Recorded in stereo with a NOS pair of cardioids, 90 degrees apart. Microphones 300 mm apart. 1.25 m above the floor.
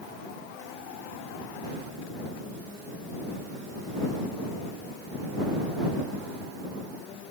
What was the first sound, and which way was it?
Only background noise.